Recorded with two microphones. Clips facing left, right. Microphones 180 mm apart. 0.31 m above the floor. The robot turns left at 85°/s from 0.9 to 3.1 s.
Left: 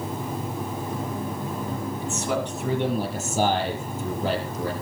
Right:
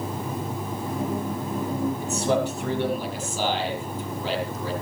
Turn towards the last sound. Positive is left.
turn(degrees=135)